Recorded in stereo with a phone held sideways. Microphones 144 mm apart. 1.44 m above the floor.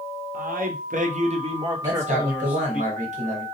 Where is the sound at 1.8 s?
55° right (ahead or behind), 1.1 m.